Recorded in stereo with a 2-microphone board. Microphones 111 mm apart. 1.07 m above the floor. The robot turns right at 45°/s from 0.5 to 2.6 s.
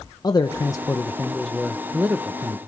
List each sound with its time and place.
0.2 s a man speaking: 130° left, 0.6 m; by 2.6 s 135° right, 0.6 m